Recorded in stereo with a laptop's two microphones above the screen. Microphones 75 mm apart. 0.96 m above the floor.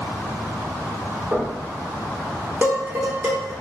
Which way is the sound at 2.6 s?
30° right (ahead or behind).